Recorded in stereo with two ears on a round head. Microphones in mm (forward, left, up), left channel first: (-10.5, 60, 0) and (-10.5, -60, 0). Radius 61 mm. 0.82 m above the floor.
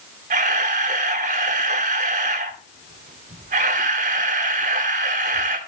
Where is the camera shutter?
55° right (ahead or behind), 1.6 m.